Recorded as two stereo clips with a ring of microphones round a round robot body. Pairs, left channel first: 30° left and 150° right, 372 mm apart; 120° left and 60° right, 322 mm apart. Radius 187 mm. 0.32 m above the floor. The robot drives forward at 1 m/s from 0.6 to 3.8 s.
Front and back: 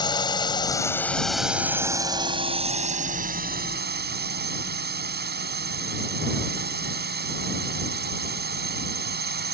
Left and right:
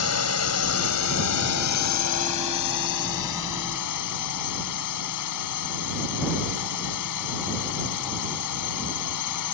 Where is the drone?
105° left; by 9.5 s 150° left.